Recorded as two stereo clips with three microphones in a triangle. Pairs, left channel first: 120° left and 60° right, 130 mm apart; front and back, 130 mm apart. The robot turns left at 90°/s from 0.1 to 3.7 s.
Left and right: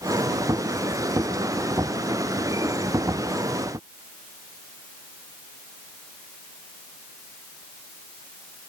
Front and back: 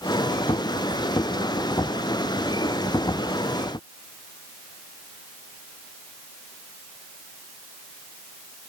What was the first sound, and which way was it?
Only background noise.